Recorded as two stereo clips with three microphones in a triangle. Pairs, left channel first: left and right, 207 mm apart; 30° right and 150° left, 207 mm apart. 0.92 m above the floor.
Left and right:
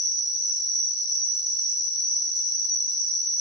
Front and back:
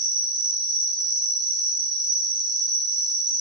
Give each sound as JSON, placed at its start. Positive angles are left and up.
{"t": 0.0, "sound": "an insect", "azimuth_deg": 130, "distance_m": 0.8}